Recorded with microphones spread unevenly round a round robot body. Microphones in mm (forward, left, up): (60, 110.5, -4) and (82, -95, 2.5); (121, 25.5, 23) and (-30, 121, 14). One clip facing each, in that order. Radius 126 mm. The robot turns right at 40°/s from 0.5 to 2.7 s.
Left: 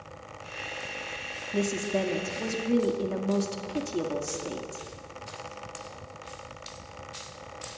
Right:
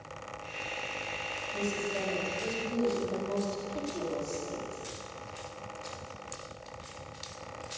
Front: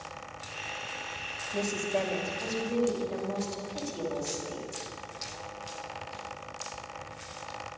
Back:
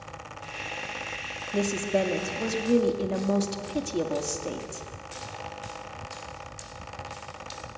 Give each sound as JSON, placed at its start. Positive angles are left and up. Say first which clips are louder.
{"t": 1.5, "sound": "a woman speaking", "louder": "left 6 dB, back 5 dB", "azimuth_deg": 85, "distance_m": 2.0}